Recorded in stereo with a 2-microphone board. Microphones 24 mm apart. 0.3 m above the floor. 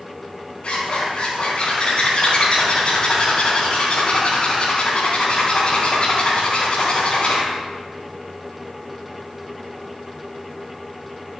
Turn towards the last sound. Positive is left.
turn(degrees=40)  # may be behind; listen again after turning